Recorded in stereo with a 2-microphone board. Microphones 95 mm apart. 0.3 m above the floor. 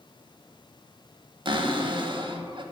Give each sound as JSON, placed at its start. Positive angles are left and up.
{"t": 1.4, "sound": "a cupboard door", "side_deg": -60, "distance_m": 0.6}